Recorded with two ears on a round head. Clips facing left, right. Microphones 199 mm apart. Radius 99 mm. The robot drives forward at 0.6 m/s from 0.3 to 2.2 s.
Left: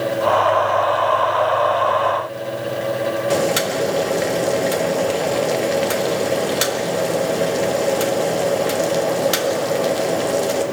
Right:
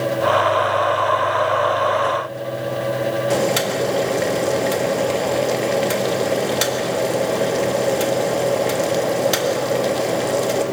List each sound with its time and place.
3.3 s boiling: 5° left (ahead or behind), 1.4 m